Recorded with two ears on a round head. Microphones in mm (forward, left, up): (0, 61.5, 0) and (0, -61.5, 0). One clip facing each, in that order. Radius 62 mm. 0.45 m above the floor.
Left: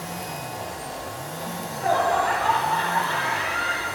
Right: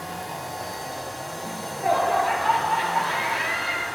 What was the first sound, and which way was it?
Laughter, 5° right (ahead or behind).